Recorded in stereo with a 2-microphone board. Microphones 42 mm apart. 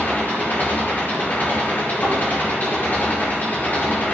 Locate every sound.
0.0 s an engine running: 40° left (ahead or behind), 6.5 m
2.0 s a thud: 70° left (ahead or behind), 8 m